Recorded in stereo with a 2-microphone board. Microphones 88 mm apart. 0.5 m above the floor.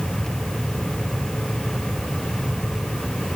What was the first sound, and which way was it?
Only background noise.